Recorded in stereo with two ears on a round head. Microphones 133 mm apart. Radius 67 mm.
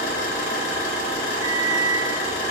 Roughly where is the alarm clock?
Left.